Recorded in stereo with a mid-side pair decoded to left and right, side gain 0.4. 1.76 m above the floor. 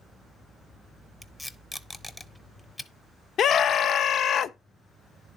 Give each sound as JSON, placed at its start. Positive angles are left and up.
{"t": 1.2, "sound": "tape being pulled", "azimuth_deg": 15, "distance_m": 1.0}
{"t": 3.4, "sound": "a scream", "azimuth_deg": 65, "distance_m": 0.5}